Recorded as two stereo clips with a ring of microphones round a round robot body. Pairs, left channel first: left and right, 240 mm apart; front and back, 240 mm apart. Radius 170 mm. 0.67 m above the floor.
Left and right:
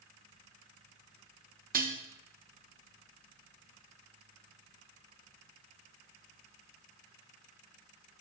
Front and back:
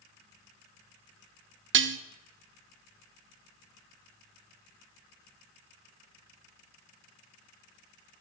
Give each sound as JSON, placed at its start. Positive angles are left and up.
{"t": 1.7, "sound": "dishes clattering", "azimuth_deg": -145, "distance_m": 0.5}